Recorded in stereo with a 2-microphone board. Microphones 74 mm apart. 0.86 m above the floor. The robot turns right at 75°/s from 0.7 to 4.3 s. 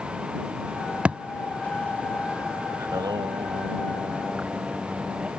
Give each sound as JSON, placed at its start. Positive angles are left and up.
{"t": 1.1, "sound": "a thud", "side_deg": -15}
{"t": 2.8, "sound": "singing", "azimuth_deg": -130}